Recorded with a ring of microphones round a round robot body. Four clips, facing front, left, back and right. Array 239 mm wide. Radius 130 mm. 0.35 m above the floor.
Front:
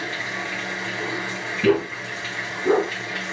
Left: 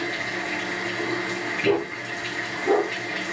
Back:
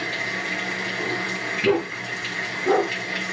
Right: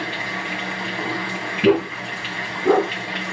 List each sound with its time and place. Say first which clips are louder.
0.0 s running water: right 1 dB, even; 100° right, 2 m
1.6 s a dog barking: right 6 dB, front 2 dB; 65° right, 1.1 m